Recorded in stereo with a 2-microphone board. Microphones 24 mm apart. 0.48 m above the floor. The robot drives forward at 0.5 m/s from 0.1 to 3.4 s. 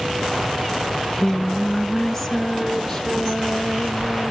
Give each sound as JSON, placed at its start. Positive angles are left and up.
{"t": 0.9, "sound": "singing", "side_deg": 20, "distance_m": 0.5}